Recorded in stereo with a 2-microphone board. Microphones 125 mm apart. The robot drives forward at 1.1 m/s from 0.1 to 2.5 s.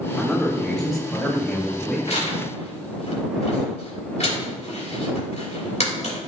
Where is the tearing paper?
55° left (ahead or behind), 3.5 m; by 6.2 s 60° left (ahead or behind), 3.5 m.